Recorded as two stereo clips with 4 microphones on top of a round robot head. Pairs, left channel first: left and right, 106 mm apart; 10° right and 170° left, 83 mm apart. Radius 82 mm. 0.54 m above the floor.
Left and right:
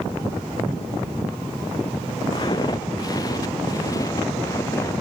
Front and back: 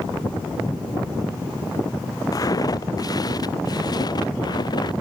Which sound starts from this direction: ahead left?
Footsteps, at 2.3 s.